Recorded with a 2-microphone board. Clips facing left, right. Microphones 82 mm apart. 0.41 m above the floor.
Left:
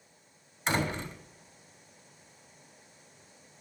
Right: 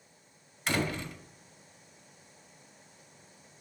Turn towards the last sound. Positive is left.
turn(degrees=25)  # may be behind; listen again after turning